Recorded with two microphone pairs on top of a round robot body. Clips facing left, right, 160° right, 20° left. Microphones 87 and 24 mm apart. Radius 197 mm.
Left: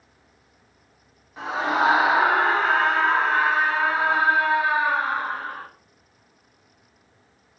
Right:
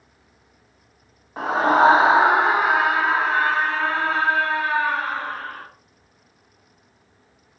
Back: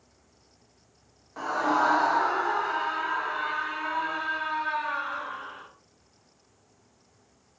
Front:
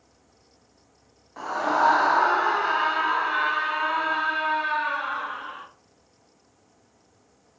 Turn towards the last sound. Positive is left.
turn(degrees=15)